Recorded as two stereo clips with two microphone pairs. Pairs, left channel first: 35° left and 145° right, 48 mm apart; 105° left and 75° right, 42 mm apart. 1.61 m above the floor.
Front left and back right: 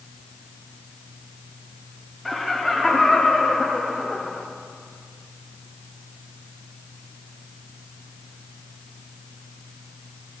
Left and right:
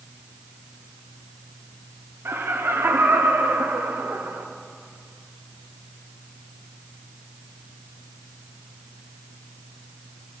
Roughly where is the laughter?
Ahead right.